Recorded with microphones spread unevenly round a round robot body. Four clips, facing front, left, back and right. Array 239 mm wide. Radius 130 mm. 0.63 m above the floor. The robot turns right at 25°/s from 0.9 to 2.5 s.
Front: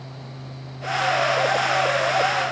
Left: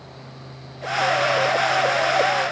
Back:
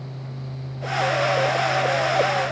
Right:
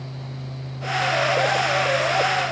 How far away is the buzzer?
I don't hear a buzzer.